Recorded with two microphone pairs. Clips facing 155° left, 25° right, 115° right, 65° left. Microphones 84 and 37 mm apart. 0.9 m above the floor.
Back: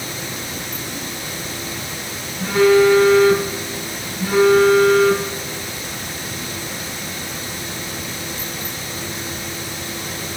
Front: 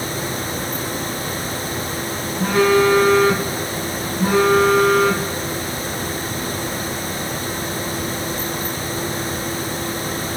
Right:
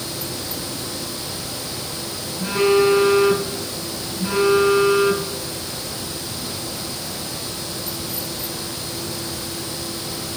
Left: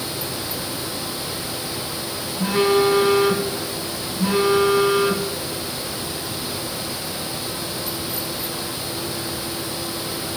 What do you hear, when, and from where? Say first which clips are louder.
2.4 s a phone buzzing: back 2 dB, right 1 dB; 20° left, 2.5 m